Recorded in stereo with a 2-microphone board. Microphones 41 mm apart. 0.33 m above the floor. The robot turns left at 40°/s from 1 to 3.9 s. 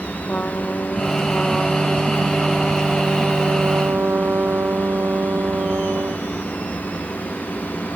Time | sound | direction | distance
0.3 | a trumpet | 40° left | ?